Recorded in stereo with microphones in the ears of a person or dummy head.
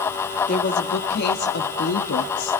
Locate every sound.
0.5 s a woman speaking: 50° left (ahead or behind), 1.9 m; by 2.6 s 80° left, 1.6 m